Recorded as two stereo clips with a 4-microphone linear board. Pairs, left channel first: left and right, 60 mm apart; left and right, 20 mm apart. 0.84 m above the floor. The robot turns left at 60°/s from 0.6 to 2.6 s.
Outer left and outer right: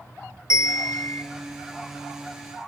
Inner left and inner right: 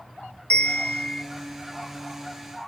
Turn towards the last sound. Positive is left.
turn(degrees=-15)